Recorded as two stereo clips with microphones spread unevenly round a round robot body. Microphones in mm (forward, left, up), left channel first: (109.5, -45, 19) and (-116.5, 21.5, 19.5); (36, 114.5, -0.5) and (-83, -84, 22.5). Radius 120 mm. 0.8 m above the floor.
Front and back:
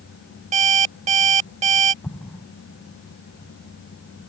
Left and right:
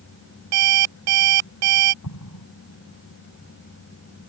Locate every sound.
0.5 s an alarm clock: 135° right
2.0 s an explosion: 65° left